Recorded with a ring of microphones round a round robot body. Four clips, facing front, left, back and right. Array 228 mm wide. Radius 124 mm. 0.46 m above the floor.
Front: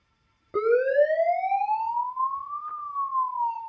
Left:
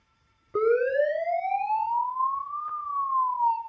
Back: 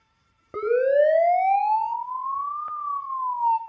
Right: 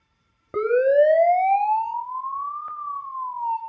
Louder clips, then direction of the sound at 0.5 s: Right 5 dB, back 1 dB; 100° right.